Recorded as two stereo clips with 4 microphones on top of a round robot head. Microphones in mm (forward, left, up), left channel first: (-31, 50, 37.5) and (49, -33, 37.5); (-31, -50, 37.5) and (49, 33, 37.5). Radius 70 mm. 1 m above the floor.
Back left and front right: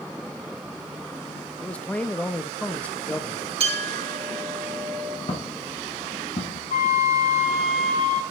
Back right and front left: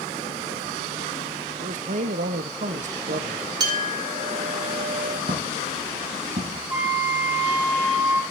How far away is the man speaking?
About 1.1 m.